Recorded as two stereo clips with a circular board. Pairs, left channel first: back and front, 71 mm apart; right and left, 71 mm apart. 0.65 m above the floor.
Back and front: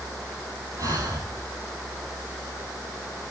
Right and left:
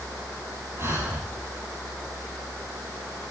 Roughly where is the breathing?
Ahead left.